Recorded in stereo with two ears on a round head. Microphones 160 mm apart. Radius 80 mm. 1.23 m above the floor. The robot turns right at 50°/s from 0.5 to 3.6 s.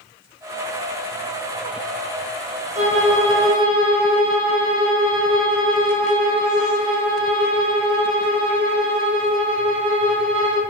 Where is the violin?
105° right, 0.6 m; by 10.6 s 60° right, 0.6 m.